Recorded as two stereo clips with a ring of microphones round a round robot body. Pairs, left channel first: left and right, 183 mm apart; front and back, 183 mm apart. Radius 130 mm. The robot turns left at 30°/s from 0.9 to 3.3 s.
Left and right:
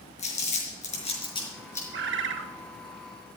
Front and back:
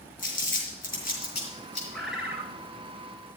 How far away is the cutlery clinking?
I don't hear cutlery clinking.